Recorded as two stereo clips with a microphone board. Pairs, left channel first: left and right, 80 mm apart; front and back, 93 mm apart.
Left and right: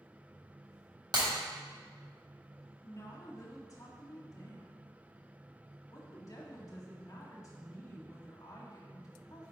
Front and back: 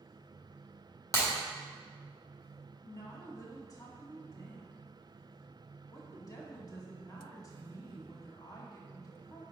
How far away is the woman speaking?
About 1.6 m.